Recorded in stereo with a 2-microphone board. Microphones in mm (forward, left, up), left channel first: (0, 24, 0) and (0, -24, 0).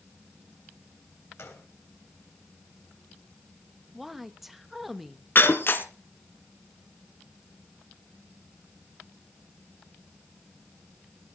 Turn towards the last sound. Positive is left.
turn(degrees=50)  # may be behind; listen again after turning